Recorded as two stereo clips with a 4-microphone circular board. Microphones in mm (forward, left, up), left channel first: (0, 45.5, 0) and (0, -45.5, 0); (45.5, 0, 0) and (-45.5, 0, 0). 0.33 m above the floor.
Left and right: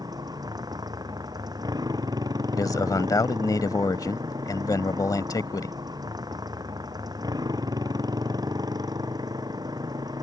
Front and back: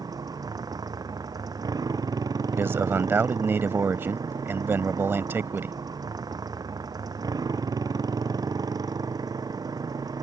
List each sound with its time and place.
0.0 s a motorcycle: 135° right
2.5 s a man speaking: 120° left